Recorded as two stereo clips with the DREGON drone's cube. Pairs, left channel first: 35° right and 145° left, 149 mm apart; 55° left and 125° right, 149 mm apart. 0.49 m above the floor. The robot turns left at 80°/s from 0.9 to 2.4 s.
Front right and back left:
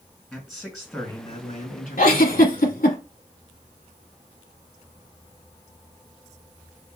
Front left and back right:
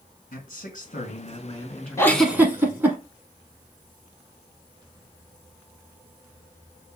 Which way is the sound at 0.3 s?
55° left.